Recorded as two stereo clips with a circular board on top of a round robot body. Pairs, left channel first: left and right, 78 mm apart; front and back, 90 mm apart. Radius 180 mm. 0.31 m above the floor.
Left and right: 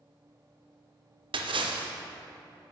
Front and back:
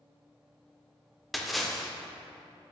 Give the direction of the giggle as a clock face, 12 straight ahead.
I don't hear a giggle.